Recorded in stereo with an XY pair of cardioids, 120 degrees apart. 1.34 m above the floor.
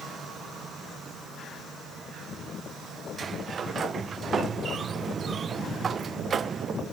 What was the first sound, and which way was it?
A sliding door, 35° right.